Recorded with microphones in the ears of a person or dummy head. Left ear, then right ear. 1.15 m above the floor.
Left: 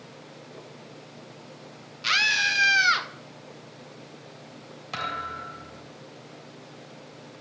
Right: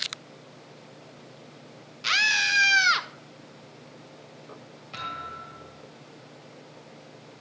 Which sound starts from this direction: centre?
A scream, at 2.0 s.